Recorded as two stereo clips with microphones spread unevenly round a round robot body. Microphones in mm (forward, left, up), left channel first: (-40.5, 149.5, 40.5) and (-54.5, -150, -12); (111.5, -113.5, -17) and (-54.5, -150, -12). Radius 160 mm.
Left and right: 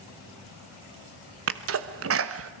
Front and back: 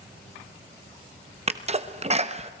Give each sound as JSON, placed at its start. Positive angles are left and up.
{"t": 1.5, "sound": "a sneeze", "azimuth_deg": -120, "distance_m": 1.1}